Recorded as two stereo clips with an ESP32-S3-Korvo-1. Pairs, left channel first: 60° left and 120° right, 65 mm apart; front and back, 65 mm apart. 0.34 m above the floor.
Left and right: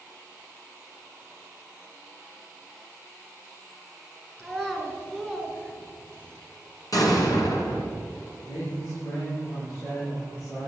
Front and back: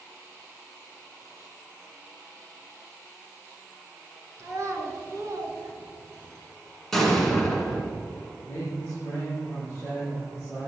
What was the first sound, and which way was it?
A child speaking, 140° left.